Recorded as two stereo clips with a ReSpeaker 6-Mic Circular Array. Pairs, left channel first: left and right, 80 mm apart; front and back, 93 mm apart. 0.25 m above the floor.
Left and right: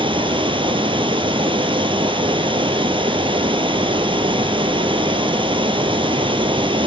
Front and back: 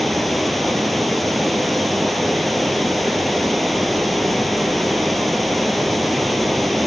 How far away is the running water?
About 0.7 m.